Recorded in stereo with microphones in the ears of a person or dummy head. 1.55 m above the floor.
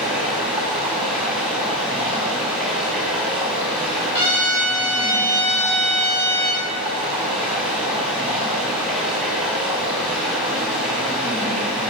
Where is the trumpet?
20° left (ahead or behind), 2.5 m.